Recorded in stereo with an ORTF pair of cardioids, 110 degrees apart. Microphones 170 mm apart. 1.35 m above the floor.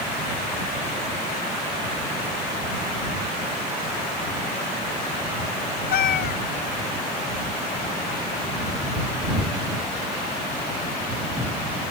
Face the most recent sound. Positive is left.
turn(degrees=65)